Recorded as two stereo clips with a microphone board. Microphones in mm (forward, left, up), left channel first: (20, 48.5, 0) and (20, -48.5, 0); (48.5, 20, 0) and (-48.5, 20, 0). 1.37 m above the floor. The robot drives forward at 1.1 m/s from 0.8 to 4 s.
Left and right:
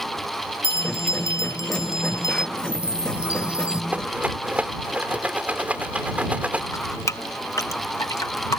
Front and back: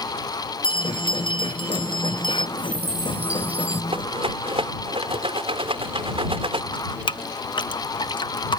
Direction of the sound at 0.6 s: 30° left.